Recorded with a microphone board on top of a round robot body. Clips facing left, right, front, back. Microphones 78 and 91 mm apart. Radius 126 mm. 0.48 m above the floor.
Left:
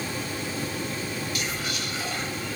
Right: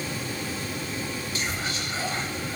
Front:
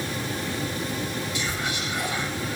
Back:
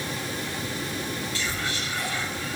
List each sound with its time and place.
1.4 s whispering: 60° right, 1.3 m